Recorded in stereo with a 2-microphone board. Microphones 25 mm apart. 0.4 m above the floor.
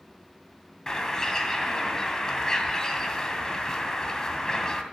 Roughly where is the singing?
I don't hear singing.